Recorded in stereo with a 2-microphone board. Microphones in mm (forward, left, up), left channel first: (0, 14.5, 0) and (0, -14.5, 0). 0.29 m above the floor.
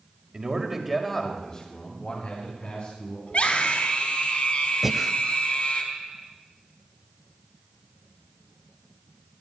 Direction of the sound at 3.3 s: 50° left (ahead or behind).